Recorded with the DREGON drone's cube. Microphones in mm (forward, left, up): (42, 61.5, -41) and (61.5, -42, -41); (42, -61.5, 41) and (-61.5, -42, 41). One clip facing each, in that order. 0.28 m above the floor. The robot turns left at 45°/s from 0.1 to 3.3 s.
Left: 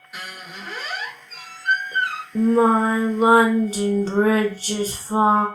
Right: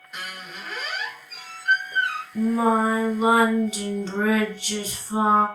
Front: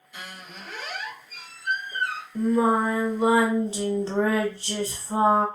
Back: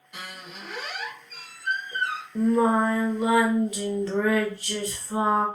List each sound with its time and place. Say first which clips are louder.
0.1 s a squeak: left 1 dB, back 1 dB; 175° right, 1.0 m; by 2.2 s 90° left, 1.0 m
2.4 s singing: left 4 dB, even; 90° left, 0.6 m; by 5.5 s 45° left, 0.6 m